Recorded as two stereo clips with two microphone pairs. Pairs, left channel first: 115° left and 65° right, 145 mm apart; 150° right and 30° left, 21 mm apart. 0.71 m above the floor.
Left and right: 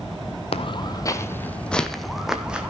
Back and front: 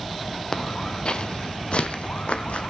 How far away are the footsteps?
About 1.2 m.